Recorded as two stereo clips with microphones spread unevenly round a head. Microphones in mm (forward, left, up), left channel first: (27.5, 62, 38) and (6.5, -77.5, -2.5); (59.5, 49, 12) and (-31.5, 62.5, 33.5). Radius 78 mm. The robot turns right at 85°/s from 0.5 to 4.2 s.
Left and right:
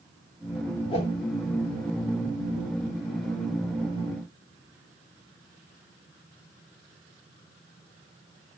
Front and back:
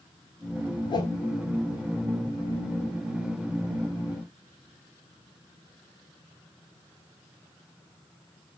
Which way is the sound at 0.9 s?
30° left.